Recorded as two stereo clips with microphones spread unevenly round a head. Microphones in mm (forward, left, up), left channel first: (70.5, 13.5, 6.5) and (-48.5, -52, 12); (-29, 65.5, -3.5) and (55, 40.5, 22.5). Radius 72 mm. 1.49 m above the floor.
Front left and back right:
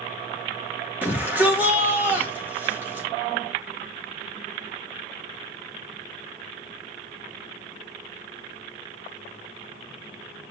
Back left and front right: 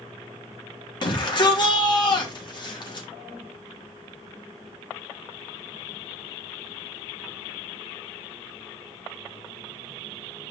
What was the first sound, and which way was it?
A shout, 130° left.